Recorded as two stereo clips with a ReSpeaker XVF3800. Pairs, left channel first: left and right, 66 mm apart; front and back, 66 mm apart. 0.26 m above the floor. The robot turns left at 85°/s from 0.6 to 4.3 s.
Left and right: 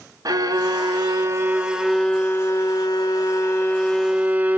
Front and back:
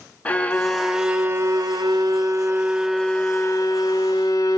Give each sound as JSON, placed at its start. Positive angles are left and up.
{"t": 0.2, "sound": "a violin", "azimuth_deg": -70, "distance_m": 0.6}